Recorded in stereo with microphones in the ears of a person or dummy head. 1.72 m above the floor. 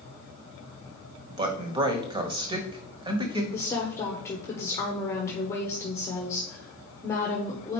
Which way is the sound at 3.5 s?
20° left (ahead or behind).